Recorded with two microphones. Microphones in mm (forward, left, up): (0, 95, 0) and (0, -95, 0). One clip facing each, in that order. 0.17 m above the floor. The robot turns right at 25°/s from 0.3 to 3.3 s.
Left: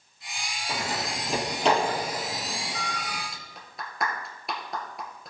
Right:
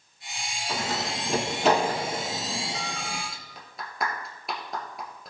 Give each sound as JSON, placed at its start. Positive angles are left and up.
{"t": 0.7, "sound": "a door slam", "side_deg": 20, "distance_m": 3.5}
{"t": 3.3, "sound": "a clap", "side_deg": 0, "distance_m": 2.0}